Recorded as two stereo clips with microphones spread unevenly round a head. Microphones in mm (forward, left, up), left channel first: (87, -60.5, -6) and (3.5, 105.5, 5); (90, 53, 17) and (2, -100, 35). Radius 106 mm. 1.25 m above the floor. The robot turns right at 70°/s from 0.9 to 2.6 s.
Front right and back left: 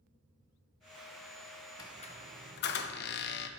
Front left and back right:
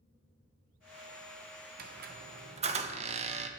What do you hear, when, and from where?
1.8 s a squeak: 140° right, 0.6 m; by 3.5 s 80° right, 0.6 m